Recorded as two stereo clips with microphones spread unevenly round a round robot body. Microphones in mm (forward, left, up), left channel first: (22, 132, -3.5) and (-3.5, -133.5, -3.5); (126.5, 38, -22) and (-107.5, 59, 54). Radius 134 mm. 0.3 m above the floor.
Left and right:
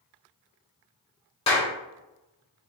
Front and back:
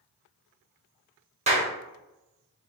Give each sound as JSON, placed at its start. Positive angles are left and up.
{"t": 1.5, "sound": "a clap", "azimuth_deg": 110, "distance_m": 1.2}